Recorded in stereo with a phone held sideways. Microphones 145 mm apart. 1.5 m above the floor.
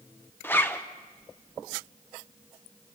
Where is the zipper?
15° left (ahead or behind), 1.1 m.